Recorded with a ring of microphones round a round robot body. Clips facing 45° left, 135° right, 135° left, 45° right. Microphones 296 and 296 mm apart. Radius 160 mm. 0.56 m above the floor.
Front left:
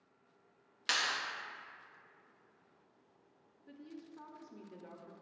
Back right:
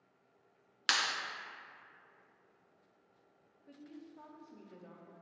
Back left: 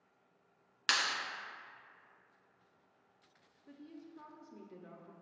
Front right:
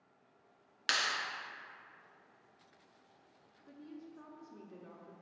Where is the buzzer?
No buzzer in this recording.